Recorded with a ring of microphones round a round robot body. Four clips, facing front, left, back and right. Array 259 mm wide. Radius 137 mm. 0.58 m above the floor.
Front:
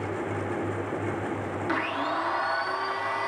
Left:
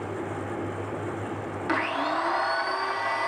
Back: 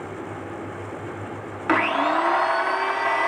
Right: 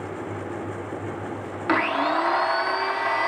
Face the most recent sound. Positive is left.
turn(degrees=-150)